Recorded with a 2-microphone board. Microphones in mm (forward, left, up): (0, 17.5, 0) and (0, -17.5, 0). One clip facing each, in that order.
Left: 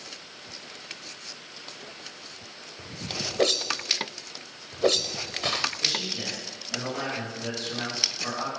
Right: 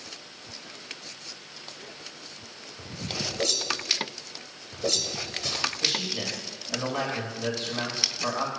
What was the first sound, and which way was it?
A whoosh, 45° left (ahead or behind).